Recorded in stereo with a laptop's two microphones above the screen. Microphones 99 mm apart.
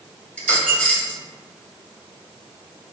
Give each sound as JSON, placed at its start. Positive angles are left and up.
{"t": 0.4, "sound": "a dropped coin", "side_deg": 15, "distance_m": 0.9}